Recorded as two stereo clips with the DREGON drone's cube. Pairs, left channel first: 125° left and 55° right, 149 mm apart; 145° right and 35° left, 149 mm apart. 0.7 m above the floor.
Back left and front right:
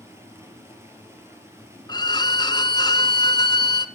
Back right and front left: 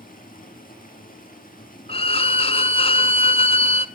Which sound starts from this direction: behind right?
Running water, at 0.0 s.